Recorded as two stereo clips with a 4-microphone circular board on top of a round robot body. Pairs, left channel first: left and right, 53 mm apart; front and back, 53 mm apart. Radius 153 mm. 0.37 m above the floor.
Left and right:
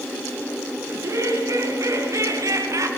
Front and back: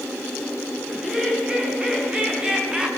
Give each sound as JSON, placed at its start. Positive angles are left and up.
{"t": 0.9, "sound": "laughter", "azimuth_deg": -105, "distance_m": 6.0}